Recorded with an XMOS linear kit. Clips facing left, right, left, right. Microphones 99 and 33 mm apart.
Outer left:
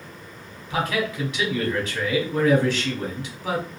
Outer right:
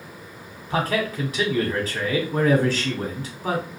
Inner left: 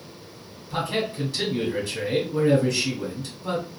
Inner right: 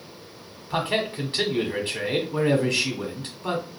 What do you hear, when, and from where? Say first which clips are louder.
0.7 s a man speaking: outer right 1 dB, inner right 1 dB; 40° right (ahead or behind), 1.4 m